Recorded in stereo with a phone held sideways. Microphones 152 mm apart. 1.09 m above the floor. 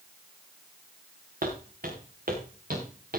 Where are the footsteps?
70° right (ahead or behind), 4 m; by 3.2 s 75° right (ahead or behind), 4.5 m.